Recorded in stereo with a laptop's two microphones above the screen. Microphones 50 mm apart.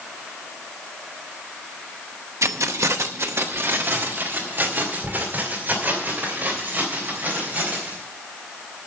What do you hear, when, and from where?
2.4 s keys jangling: 75° right (ahead or behind), 0.7 m; by 8.0 s 35° right (ahead or behind), 4.5 m